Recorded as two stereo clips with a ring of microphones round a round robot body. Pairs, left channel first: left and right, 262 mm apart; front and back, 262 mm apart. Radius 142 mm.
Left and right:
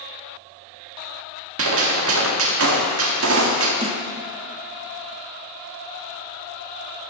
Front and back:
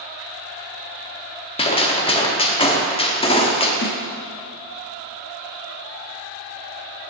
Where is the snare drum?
30° right, 1.3 m.